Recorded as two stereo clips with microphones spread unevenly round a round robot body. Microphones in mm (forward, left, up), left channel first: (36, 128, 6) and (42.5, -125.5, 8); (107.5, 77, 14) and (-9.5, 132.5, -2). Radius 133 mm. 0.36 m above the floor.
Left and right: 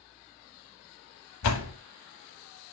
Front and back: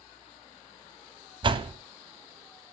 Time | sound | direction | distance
1.4 | a door slam | 110° left | 1.5 m